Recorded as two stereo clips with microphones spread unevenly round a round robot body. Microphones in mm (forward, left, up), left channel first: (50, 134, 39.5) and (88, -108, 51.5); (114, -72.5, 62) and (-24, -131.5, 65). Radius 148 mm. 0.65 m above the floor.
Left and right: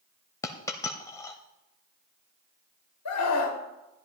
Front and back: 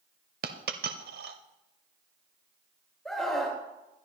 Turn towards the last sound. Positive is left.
turn(degrees=110)